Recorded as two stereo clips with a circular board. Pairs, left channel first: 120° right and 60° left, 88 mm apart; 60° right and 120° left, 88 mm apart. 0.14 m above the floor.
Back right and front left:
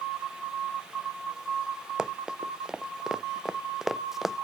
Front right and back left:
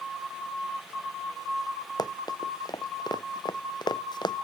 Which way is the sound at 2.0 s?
20° right.